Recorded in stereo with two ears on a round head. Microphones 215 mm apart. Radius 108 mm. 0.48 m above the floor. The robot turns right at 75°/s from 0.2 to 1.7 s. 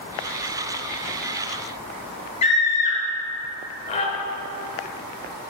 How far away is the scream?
About 1.5 m.